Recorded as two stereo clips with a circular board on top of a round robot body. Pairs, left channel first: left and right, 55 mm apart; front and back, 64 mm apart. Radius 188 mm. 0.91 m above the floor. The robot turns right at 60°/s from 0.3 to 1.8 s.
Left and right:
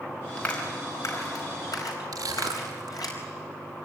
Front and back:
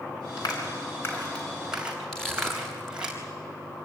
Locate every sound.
0.4 s a clap: 15° left, 4.5 m; by 3.1 s 100° left, 4.5 m
2.1 s crushing: 85° right, 0.8 m